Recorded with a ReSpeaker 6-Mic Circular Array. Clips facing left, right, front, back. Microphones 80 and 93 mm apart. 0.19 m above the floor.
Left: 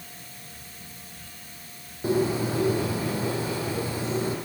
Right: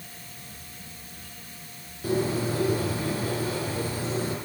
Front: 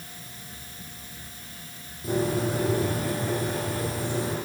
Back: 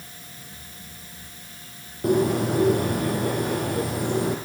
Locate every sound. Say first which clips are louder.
2.0 s a bird: left 2 dB, back 5 dB; 155° left, 9 m